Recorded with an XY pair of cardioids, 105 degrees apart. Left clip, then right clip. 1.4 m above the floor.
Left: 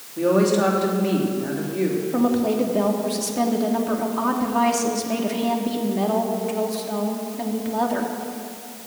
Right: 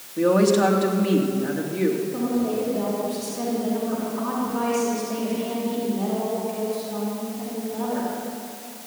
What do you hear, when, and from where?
0.2 s a woman speaking: 15° right, 2.5 m
2.1 s a woman speaking: 65° left, 3 m